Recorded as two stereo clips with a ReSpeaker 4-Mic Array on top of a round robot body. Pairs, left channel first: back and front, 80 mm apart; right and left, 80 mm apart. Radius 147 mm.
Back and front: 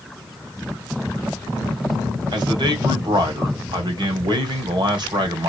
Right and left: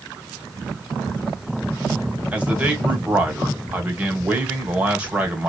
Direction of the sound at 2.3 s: 15° left.